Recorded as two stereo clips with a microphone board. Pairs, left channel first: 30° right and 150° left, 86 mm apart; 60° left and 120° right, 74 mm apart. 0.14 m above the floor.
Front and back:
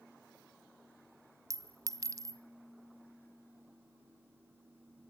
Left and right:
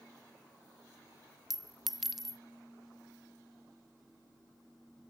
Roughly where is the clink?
Behind left.